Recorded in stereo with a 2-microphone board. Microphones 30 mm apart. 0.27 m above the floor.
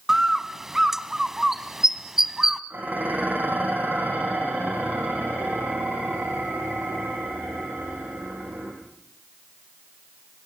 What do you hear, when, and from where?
0.1 s a bird: 15° right (ahead or behind), 1.1 m
2.7 s dishes clattering: 85° right, 8 m